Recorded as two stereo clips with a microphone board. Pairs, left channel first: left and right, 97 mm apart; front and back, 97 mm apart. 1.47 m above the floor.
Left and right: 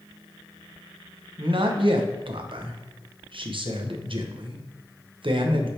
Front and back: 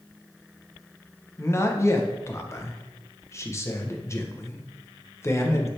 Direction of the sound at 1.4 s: 60° right.